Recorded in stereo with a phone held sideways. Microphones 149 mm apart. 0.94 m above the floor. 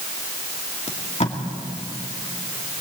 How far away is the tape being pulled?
About 2 m.